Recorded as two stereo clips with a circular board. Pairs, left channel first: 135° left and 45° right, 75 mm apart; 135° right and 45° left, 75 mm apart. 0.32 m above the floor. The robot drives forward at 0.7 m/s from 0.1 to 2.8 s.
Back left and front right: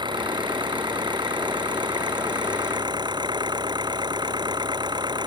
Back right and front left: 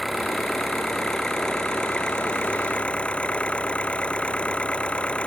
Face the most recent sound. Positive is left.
turn(degrees=-60)